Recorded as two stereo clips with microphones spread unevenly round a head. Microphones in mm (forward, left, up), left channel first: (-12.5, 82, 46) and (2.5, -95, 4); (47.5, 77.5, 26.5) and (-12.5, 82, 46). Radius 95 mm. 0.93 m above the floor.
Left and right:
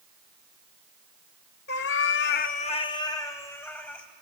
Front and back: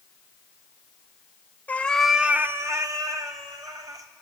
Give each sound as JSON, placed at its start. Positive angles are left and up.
{"t": 1.7, "sound": "a cat meowing", "azimuth_deg": 65, "distance_m": 1.0}